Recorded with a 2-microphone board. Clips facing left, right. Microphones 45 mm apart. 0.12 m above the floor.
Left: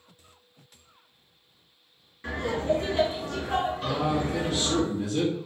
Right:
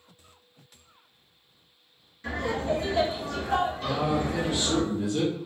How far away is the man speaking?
About 1.5 m.